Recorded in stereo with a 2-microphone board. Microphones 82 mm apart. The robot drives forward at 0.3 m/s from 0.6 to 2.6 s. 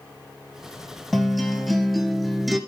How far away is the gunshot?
I don't hear a gunshot.